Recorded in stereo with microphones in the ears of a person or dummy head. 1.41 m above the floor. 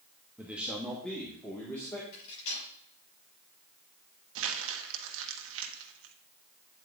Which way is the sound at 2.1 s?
65° left (ahead or behind).